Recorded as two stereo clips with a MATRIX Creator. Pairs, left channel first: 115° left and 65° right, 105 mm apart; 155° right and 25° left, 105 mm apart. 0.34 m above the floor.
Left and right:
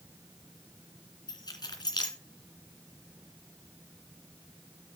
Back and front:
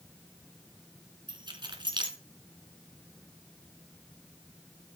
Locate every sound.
1.3 s keys jangling: 65° left, 2 m